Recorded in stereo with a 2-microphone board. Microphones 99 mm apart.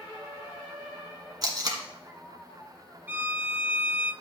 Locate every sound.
1.4 s tape being pulled: 40° right (ahead or behind), 1.5 m
3.1 s a violin: 20° right (ahead or behind), 0.7 m